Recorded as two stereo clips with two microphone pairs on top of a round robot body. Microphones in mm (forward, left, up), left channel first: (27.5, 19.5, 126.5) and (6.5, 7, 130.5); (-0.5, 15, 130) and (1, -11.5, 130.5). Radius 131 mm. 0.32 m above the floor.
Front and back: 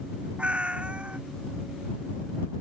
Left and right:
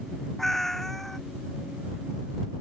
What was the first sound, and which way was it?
A cat meowing, 170° left.